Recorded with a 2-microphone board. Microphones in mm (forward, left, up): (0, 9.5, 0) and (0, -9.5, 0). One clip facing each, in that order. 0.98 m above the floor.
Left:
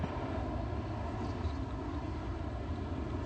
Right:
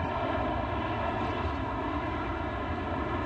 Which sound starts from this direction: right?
An aircraft, at 0.0 s.